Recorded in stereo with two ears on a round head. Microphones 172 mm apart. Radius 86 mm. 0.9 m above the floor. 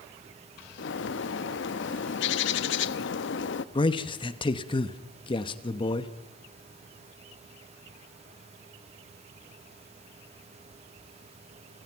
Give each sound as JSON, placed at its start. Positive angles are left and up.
{"t": 0.8, "sound": "a bird", "side_deg": 70, "distance_m": 0.7}
{"t": 3.8, "sound": "a man speaking", "side_deg": 25, "distance_m": 1.1}